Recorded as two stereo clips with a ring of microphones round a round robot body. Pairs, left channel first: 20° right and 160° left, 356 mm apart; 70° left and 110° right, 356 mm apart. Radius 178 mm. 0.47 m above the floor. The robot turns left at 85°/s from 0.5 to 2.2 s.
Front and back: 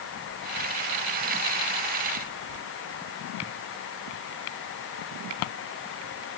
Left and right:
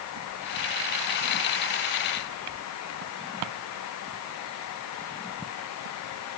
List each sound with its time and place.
Only background noise.